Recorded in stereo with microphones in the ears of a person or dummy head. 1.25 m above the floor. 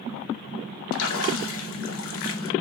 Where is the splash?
70° left (ahead or behind), 0.8 m.